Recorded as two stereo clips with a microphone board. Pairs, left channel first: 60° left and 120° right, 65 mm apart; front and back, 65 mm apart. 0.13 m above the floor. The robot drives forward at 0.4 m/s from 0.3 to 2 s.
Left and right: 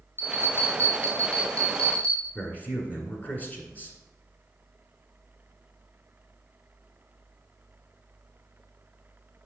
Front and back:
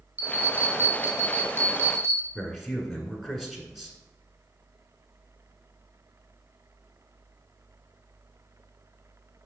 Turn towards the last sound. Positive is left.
turn(degrees=95)